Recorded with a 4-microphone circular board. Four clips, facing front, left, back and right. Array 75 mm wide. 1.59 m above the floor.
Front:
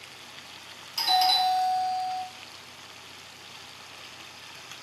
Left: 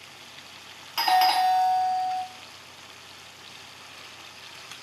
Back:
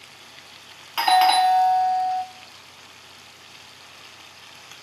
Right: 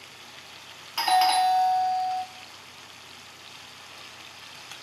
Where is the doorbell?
175° left, 0.6 m.